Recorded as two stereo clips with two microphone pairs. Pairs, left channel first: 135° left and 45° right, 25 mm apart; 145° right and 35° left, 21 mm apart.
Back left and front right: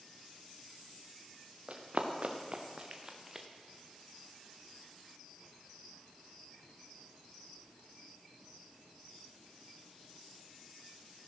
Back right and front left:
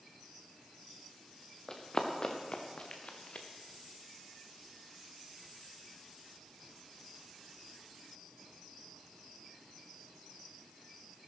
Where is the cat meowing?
No cat meowing in this recording.